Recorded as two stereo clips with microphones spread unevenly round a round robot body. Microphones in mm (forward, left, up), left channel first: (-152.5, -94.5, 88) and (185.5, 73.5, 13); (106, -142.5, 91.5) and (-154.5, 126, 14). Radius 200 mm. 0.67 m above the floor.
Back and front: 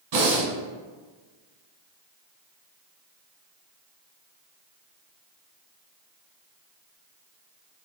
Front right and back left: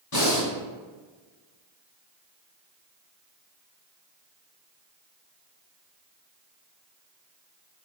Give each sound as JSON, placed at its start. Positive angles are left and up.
{"t": 0.1, "sound": "breathing", "azimuth_deg": -5, "distance_m": 1.3}